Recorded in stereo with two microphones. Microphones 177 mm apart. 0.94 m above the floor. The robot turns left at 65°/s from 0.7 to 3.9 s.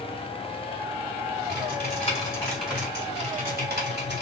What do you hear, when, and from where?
1.5 s typing on a keyboard: 75° left, 2.5 m; by 4.2 s 80° right, 2.5 m